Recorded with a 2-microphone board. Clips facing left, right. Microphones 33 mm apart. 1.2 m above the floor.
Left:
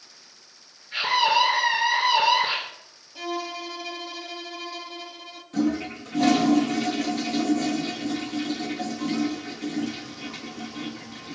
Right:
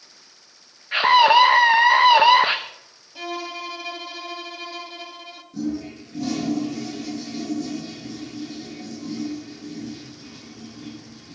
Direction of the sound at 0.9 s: 45° right (ahead or behind).